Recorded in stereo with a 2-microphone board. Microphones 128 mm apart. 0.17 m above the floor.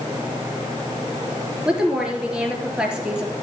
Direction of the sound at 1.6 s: 5° right (ahead or behind).